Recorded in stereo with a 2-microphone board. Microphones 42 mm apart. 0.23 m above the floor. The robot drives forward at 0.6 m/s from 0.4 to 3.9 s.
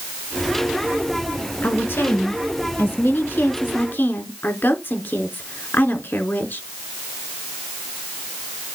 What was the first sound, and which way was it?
A woman speaking, 65° left (ahead or behind).